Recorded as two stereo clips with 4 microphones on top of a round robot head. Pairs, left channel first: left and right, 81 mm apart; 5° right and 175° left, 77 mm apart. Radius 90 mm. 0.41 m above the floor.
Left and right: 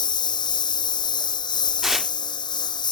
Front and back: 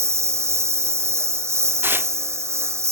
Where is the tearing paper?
170° right.